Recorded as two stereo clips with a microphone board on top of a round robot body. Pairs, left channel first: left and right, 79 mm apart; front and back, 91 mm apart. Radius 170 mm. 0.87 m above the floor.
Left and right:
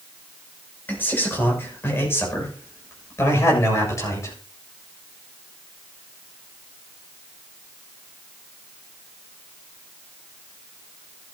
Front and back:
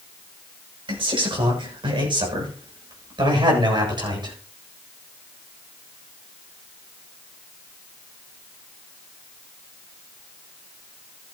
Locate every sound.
0.9 s a man speaking: 155° left, 6.5 m; by 4.3 s 140° left, 8 m